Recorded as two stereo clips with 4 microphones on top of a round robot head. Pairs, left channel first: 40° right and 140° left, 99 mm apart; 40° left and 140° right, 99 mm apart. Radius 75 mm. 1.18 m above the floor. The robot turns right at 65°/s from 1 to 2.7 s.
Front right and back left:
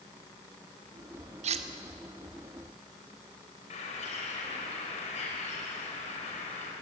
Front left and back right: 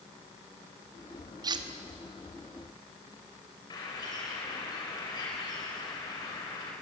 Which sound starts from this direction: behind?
Cutlery clinking, at 1.4 s.